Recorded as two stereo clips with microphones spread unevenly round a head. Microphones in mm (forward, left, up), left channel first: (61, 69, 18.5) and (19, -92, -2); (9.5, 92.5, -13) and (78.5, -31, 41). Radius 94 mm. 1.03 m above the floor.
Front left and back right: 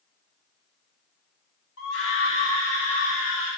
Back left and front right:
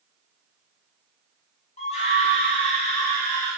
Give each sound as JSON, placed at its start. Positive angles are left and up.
{"t": 1.8, "sound": "a scream", "azimuth_deg": 85, "distance_m": 2.5}